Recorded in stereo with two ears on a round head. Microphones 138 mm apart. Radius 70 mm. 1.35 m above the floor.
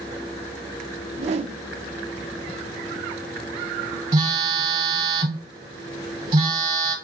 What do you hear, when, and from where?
1.1 s a whoosh: 40° right (ahead or behind), 0.5 m
4.1 s a phone buzzing: 30° right (ahead or behind), 1.3 m